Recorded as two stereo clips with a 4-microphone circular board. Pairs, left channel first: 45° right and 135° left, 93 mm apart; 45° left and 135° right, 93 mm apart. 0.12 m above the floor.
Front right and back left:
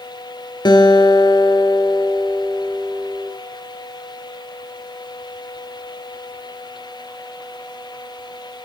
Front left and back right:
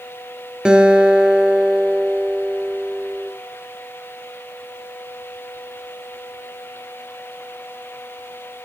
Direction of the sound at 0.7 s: 55° right.